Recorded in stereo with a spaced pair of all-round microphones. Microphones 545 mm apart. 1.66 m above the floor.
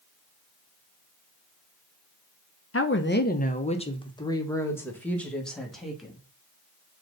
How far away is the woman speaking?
About 0.8 m.